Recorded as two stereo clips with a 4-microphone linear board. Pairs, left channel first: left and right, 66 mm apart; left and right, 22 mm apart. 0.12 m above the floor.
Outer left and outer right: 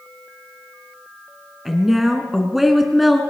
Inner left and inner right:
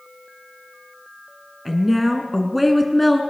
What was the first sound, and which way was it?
A woman speaking, 5° right (ahead or behind).